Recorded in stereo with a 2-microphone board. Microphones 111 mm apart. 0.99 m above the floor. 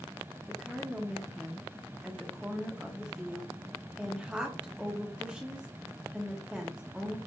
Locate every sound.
0.5 s a woman speaking: 10° right (ahead or behind), 0.6 m